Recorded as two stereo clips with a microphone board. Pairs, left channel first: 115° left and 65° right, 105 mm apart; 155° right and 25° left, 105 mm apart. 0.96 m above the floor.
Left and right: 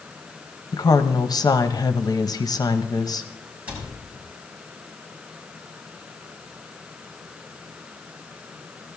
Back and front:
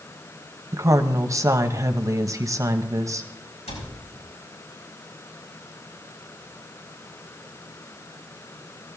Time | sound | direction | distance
0.7 | a woman speaking | 75° left | 0.9 m
3.7 | a cupboard door | 145° right | 6.5 m